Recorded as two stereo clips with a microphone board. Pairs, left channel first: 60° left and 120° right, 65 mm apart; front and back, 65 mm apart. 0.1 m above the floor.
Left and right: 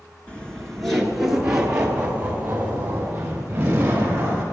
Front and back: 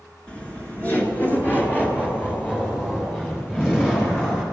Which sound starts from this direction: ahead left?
Laughter, at 0.3 s.